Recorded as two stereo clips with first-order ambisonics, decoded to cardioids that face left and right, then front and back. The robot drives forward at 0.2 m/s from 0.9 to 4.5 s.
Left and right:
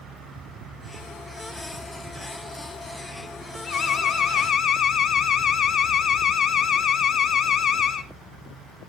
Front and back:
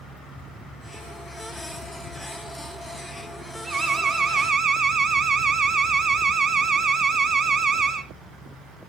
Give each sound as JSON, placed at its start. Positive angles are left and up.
{"t": 3.6, "sound": "an alarm", "azimuth_deg": 125, "distance_m": 1.2}